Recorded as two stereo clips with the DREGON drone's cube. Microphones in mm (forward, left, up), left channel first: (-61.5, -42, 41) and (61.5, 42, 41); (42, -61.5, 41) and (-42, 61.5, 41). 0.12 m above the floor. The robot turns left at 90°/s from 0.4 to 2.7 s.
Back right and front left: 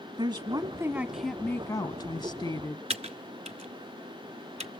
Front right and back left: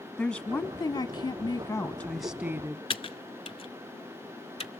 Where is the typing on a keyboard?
5° right, 0.7 m.